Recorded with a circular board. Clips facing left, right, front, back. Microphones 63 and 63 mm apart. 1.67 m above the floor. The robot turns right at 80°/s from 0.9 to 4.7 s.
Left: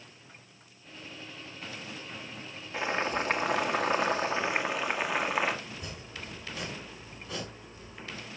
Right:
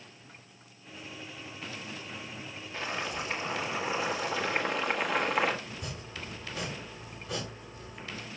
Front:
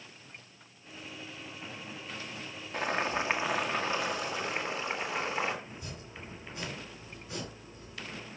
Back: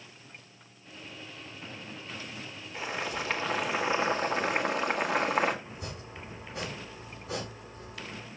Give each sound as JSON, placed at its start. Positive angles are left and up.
{"t": 2.7, "sound": "boiling", "azimuth_deg": 20, "distance_m": 1.9}
{"t": 5.7, "sound": "chopping", "azimuth_deg": -175, "distance_m": 6.5}